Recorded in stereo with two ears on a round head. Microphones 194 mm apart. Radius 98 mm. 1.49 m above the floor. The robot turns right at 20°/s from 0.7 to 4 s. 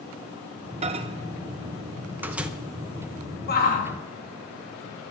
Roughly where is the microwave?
Right.